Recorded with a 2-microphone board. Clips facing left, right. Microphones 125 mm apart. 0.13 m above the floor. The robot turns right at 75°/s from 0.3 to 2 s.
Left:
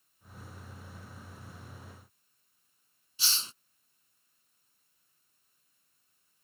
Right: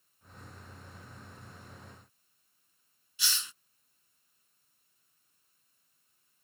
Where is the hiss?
35° left (ahead or behind).